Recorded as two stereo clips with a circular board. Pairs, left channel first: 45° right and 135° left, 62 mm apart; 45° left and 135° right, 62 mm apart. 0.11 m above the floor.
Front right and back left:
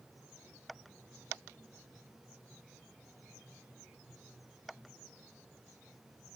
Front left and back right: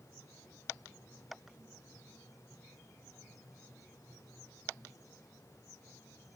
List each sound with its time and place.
Only background noise.